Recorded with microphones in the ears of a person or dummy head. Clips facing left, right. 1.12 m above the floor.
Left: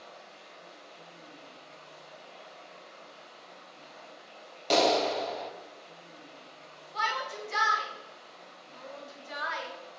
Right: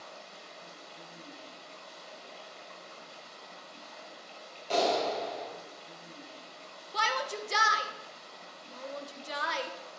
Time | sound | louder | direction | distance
0.0 | running water | right 1 dB | 65° right (ahead or behind) | 3 m
4.7 | a clap | left 3 dB | 80° left | 1.3 m
6.9 | a shout | right 2 dB | 50° right (ahead or behind) | 1.0 m